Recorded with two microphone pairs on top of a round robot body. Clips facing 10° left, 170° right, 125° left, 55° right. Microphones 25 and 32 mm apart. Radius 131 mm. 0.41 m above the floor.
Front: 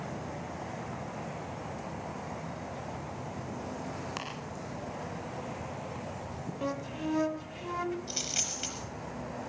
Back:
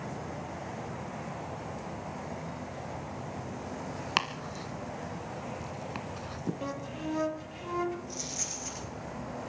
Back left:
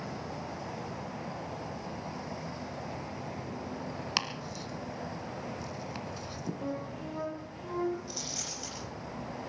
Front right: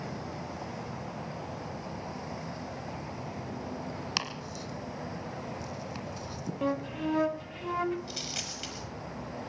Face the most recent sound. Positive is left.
turn(degrees=-15)